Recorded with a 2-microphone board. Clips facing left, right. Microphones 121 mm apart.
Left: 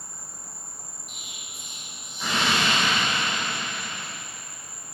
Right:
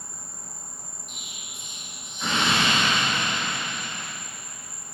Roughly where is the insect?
Centre.